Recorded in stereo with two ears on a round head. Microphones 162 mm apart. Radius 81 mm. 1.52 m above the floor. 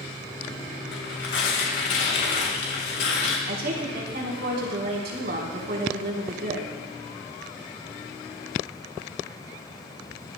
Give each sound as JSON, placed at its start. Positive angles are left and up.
{"t": 0.9, "sound": "tearing paper", "side_deg": 70, "distance_m": 3.5}
{"t": 3.5, "sound": "a woman speaking", "side_deg": -60, "distance_m": 4.0}